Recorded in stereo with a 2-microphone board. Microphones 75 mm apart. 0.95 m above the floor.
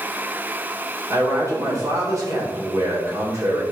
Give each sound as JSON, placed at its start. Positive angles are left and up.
{"t": 1.1, "sound": "a man speaking", "side_deg": -45, "distance_m": 4.0}